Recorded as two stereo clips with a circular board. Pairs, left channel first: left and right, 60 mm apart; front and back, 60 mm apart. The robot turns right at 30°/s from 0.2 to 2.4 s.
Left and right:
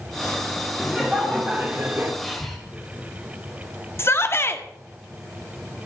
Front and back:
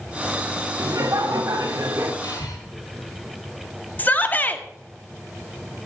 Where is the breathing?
5° right, 3.5 m; by 2.6 s straight ahead, 3.5 m.